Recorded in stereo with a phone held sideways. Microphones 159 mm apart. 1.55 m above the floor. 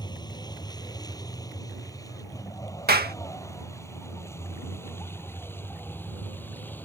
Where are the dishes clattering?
No dishes clattering in this recording.